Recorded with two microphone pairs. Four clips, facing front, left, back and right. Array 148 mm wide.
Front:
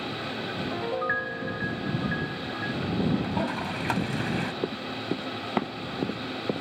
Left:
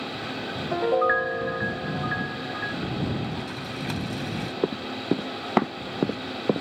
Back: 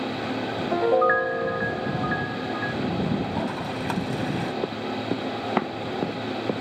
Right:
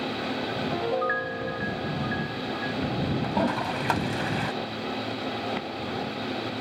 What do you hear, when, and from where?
0.7 s a piano: 160° left
3.2 s a toilet flushing: 95° right
4.6 s running footsteps: 95° left